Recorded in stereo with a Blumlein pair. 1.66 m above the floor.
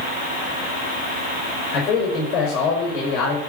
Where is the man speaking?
30° left, 5.5 m.